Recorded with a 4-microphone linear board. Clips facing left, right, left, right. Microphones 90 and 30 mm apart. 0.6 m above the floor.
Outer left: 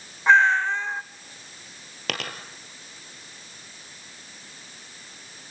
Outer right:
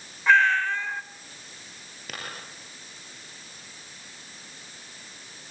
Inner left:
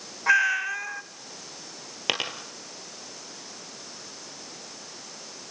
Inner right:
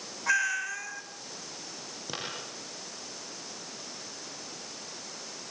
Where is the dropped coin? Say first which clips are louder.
Outer left 7 dB, inner left 11 dB; 75° left (ahead or behind), 2.5 m.